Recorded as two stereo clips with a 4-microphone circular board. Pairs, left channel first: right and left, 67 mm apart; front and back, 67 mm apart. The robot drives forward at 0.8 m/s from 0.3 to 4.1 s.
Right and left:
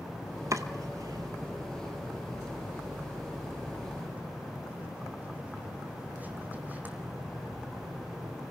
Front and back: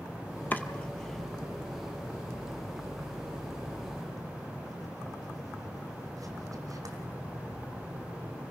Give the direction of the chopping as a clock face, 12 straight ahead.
10 o'clock.